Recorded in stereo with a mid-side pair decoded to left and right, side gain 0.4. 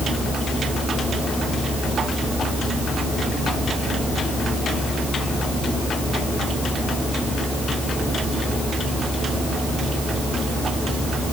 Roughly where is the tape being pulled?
No tape being pulled in this recording.